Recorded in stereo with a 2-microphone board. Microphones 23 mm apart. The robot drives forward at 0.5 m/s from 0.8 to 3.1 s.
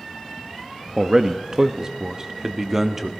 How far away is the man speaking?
About 0.6 m.